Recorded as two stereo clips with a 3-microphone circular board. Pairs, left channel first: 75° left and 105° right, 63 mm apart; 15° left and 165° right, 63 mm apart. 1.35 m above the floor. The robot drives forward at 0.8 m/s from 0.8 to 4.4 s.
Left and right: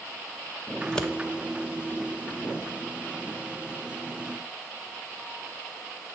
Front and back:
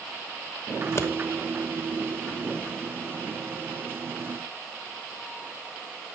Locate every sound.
0.8 s scissors: straight ahead, 1.1 m